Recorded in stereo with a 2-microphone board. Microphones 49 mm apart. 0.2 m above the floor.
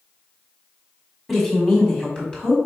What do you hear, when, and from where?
1.3 s a woman speaking: 5° left (ahead or behind), 1.2 m; by 2.5 s 25° left (ahead or behind), 1.2 m